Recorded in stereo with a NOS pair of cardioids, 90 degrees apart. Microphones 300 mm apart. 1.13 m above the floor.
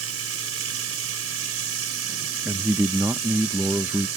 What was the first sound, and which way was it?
Running water, 60° right.